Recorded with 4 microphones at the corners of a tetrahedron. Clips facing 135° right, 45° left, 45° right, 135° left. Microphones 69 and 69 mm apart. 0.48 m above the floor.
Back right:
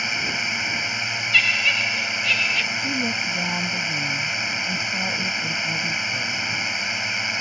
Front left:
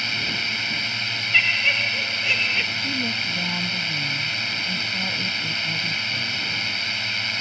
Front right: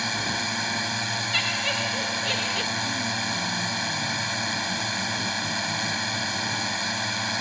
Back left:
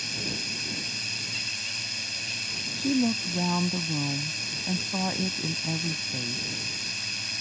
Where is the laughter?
30° right.